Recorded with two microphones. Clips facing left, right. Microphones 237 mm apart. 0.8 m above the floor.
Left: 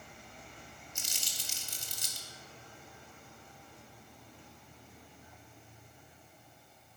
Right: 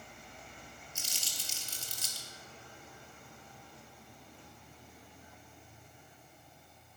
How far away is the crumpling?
About 2 m.